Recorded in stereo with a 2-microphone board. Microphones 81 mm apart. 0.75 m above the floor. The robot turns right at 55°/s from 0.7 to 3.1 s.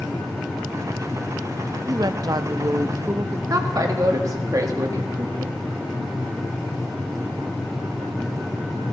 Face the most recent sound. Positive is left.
turn(degrees=-45)  # may be behind; listen again after turning